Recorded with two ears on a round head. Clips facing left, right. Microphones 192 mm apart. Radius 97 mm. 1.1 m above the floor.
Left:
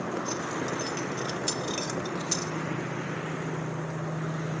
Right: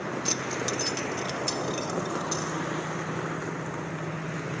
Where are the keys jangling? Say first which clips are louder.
Even; 70° right (ahead or behind), 1.2 m; by 2.5 s 35° left (ahead or behind), 3 m.